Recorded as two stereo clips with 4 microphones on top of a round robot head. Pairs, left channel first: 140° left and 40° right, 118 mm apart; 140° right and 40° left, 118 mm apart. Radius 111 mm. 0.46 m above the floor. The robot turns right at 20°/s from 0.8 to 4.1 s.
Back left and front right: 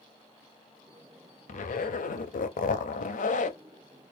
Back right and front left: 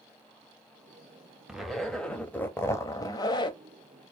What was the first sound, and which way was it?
A zipper, 125° left.